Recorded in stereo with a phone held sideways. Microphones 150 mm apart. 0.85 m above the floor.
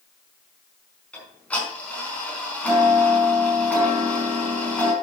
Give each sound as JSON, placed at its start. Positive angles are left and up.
{"t": 1.1, "sound": "ticking", "side_deg": 10, "distance_m": 5.0}